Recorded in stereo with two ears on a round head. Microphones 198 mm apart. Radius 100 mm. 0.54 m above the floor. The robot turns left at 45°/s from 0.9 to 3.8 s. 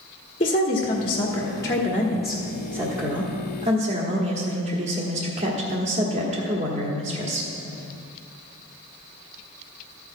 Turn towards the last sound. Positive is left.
turn(degrees=-70)